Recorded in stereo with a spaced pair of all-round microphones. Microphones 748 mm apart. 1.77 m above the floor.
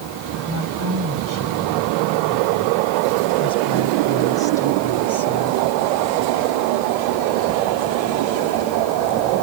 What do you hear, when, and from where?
0.5 s a woman speaking: 20° right (ahead or behind); by 5.6 s 40° right (ahead or behind)